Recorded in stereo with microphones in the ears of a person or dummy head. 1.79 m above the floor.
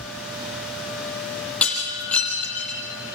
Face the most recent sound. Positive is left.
turn(degrees=5)  # may be behind; listen again after turning